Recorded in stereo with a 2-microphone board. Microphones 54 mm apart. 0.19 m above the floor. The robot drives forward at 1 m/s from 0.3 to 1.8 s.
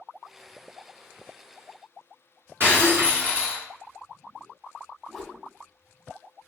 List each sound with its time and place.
2.6 s breaking glass: 45° right (ahead or behind), 1.7 m
5.1 s a whoosh: 5° right (ahead or behind), 0.7 m